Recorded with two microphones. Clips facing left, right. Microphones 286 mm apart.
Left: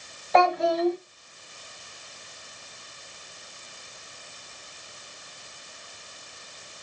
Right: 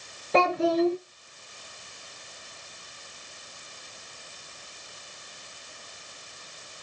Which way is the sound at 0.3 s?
35° right (ahead or behind).